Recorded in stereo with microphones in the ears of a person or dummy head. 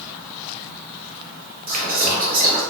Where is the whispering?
40° right (ahead or behind), 0.6 m.